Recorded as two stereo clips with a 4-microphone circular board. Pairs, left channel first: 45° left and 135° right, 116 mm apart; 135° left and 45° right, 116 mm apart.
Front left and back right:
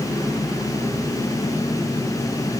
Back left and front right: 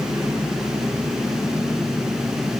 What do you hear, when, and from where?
Only background noise.